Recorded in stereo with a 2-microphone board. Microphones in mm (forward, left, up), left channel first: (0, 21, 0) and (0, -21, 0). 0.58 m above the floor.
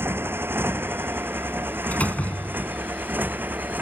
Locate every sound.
0.0 s a motorcycle: 70° right (ahead or behind); by 3.8 s 50° right (ahead or behind)
1.9 s a door slam: 40° left (ahead or behind)